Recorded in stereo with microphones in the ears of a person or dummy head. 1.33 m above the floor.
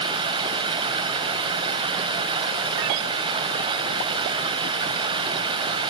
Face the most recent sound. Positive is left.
turn(degrees=-25)  # may be behind; listen again after turning